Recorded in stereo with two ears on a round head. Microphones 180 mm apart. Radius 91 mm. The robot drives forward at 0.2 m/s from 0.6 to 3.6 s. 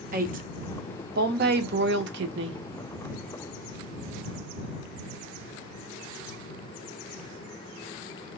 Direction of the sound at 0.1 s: 40° right (ahead or behind).